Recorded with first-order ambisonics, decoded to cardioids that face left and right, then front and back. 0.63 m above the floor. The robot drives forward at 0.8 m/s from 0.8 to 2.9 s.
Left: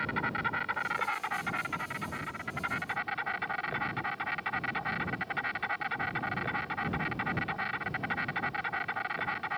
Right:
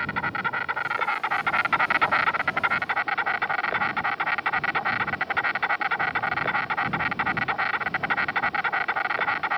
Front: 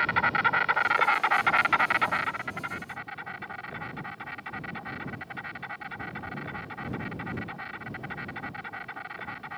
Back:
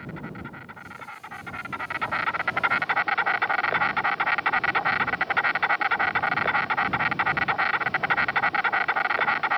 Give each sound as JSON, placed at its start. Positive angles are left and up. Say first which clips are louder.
{"t": 0.0, "sound": "an insect", "louder": "right 5 dB, front 15 dB", "azimuth_deg": -20}